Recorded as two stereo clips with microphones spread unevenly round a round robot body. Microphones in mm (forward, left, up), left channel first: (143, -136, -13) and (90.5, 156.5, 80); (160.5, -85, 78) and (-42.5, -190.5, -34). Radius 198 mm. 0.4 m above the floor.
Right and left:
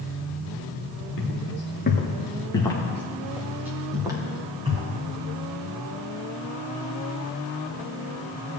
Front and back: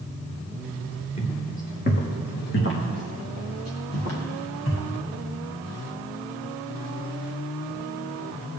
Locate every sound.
1.2 s footsteps: 30° right, 3 m; by 4.9 s 30° left, 5.5 m